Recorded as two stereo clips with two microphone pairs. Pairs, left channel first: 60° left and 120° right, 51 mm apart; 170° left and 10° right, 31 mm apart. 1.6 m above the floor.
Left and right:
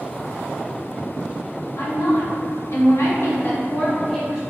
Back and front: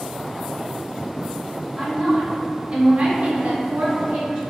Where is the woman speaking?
65° left, 1.2 m; by 4.4 s 40° right, 0.6 m.